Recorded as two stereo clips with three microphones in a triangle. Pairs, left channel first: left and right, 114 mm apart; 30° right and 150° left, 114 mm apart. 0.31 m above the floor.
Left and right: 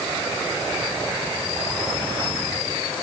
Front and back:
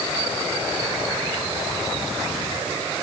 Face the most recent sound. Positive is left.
No sound to turn to.